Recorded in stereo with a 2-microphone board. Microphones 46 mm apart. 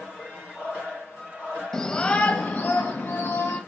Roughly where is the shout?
Centre.